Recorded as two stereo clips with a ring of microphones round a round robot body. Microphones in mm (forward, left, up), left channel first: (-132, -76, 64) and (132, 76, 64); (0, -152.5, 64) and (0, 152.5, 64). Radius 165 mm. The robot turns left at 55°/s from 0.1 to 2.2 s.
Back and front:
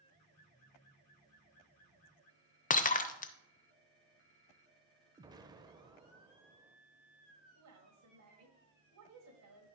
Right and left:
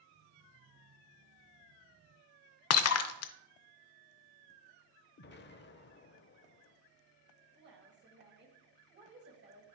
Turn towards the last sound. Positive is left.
turn(degrees=45)